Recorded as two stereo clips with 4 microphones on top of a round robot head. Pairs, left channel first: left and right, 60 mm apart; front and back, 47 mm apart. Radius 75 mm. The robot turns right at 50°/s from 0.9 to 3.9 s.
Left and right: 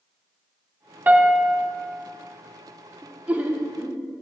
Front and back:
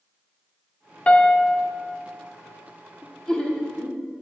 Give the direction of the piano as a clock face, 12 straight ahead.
2 o'clock.